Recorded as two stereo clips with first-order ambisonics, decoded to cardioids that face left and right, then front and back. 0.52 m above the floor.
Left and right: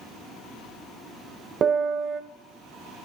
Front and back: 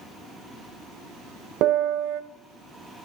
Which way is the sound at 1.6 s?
150° right.